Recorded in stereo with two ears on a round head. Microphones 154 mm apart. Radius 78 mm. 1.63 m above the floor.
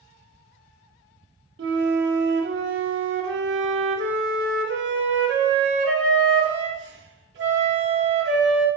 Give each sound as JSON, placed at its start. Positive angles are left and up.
{"t": 1.6, "sound": "a flute", "side_deg": -75, "distance_m": 0.9}